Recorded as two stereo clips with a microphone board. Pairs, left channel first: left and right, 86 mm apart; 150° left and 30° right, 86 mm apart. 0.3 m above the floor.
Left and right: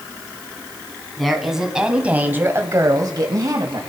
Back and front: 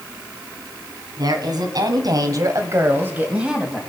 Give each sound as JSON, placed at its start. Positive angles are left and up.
{"t": 1.2, "sound": "a woman speaking", "azimuth_deg": 0, "distance_m": 2.5}